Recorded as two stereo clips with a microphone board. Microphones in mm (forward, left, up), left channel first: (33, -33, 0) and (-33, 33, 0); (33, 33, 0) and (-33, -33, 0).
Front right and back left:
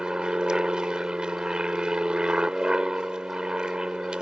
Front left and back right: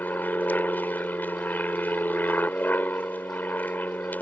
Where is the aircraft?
70° left.